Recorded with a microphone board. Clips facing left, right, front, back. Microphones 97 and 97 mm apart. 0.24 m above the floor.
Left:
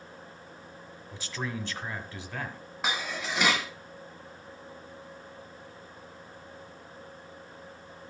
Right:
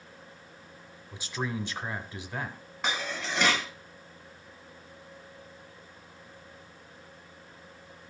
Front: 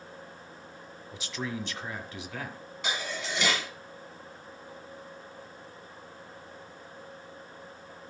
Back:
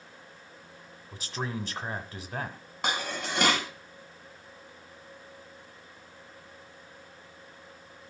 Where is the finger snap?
No finger snap in this recording.